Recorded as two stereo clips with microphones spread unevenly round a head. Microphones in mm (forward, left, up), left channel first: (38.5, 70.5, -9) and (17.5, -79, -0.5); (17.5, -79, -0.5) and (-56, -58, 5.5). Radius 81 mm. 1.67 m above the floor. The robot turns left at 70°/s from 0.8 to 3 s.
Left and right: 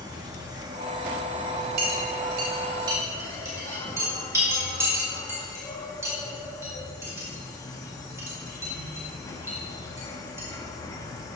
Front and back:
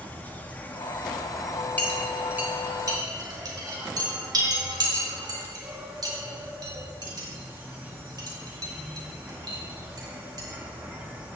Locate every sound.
0.0 s an insect: 70° right, 1.2 m; by 11.4 s 135° left, 1.2 m
1.8 s a clink: 85° right, 3 m; by 10.5 s 170° right, 3 m